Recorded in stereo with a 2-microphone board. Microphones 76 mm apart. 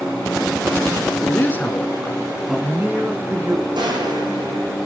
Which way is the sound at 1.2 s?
30° left (ahead or behind).